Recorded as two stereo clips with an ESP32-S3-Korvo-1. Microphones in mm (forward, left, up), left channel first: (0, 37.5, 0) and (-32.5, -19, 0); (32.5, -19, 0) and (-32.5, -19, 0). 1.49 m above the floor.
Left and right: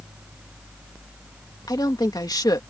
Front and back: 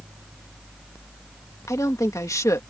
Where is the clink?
I don't hear a clink.